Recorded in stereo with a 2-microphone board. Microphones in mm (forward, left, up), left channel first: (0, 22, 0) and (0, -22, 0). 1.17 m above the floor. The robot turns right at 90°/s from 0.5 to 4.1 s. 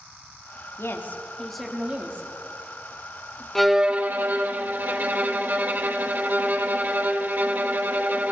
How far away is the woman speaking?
About 3 m.